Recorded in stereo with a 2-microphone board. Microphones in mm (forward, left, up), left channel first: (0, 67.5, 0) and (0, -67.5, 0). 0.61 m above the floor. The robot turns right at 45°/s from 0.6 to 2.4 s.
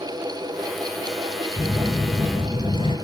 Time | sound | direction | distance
1.6 | a phone buzzing | 5° left | 2.5 m